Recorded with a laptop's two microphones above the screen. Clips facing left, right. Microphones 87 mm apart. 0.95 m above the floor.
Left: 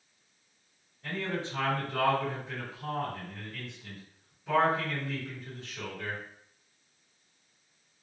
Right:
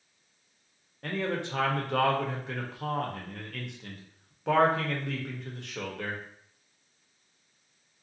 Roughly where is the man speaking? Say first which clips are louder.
Right 3 dB; right.